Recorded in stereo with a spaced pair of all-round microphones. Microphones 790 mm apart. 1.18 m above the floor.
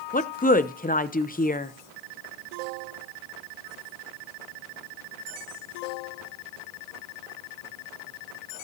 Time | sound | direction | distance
0.1 | a woman speaking | 10° left (ahead or behind) | 0.6 m